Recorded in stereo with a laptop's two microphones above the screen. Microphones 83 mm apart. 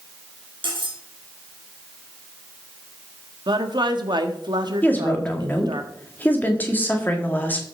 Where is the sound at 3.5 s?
60° right (ahead or behind), 1.4 m.